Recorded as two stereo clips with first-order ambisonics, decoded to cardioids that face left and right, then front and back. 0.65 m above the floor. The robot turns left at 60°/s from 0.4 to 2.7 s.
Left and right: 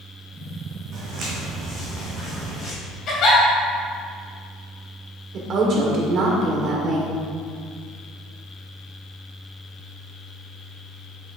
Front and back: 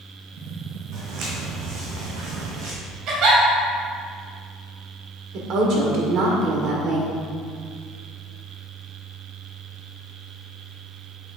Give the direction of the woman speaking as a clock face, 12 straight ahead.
5 o'clock.